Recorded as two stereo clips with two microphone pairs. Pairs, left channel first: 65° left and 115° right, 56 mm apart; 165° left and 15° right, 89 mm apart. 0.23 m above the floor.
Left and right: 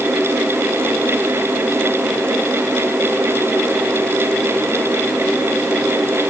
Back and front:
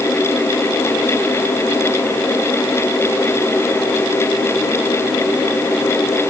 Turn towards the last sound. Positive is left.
No sound to turn to.